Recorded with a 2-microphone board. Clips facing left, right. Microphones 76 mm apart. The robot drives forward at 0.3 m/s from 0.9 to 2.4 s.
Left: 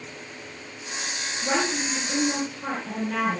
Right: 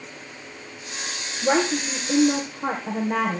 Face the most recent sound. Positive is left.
turn(degrees=-35)  # may be behind; listen again after turning